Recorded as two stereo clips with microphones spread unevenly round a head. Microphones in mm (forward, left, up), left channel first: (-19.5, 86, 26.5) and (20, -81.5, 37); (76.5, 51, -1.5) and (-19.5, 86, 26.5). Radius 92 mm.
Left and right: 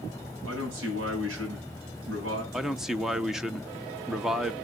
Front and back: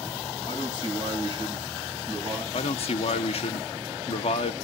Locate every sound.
0.5 s a man speaking: 70° right, 9 m
2.5 s a man speaking: 10° left, 0.8 m